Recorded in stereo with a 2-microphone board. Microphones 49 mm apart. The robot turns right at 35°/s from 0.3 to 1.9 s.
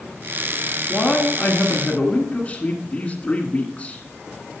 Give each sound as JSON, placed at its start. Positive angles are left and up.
{"t": 0.9, "sound": "a man speaking", "side_deg": 20, "distance_m": 1.5}